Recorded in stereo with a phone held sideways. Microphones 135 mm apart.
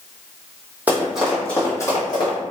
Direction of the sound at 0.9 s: 10° right (ahead or behind).